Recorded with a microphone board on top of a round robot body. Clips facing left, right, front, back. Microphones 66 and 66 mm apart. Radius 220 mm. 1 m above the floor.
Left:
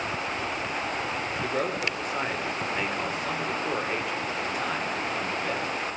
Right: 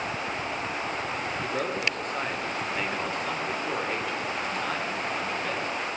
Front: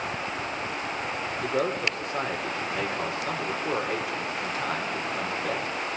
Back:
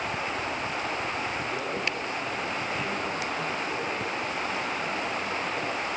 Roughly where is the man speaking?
Ahead.